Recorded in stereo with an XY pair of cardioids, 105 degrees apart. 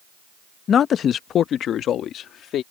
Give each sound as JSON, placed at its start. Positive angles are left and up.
{"t": 0.7, "sound": "a man speaking", "azimuth_deg": 50}